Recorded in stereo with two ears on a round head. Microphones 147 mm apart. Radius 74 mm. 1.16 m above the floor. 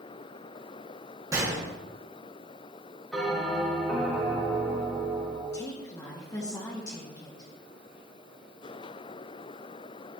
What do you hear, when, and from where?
1.3 s a gunshot: 20° right (ahead or behind), 2 m
3.1 s a bell: centre (ahead or behind), 3 m
5.5 s a woman speaking: 20° left (ahead or behind), 1.8 m